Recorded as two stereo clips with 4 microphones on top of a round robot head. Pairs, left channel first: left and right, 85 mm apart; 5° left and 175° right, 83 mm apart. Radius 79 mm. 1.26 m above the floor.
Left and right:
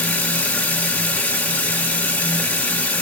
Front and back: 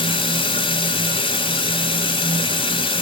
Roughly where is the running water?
Ahead.